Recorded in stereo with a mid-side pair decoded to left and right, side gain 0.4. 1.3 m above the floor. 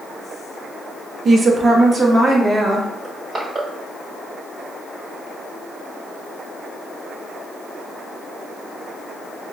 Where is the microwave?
No microwave in this recording.